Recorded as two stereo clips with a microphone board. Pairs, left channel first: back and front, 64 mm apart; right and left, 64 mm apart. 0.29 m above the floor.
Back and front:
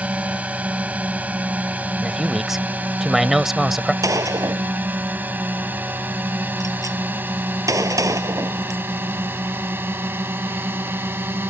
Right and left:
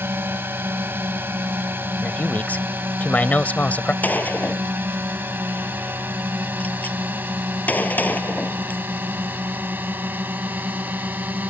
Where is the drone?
60° left; by 11.5 s 40° left.